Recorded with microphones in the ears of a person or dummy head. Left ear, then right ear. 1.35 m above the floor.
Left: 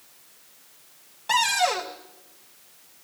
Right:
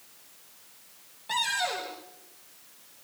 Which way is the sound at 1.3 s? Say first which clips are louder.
Left 7 dB; 40° left (ahead or behind).